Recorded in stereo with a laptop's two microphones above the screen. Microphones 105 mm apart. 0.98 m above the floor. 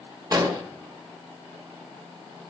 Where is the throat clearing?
No throat clearing in this recording.